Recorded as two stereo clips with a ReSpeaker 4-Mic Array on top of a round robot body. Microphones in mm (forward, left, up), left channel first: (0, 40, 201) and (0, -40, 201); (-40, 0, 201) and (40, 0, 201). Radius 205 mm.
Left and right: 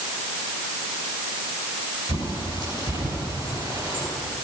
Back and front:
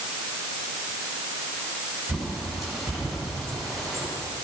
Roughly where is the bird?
Right.